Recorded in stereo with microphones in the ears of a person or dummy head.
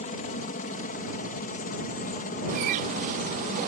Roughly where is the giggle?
No giggle in this recording.